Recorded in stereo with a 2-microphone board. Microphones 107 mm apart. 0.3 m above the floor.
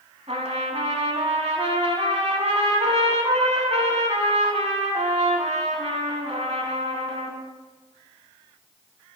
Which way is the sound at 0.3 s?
70° right (ahead or behind).